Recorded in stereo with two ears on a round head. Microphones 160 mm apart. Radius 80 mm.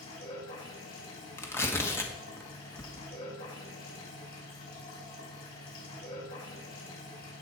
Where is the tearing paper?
15° left (ahead or behind), 1.3 m.